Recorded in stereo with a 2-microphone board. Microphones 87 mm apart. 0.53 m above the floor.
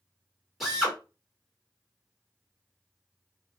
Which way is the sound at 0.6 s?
Centre (ahead or behind).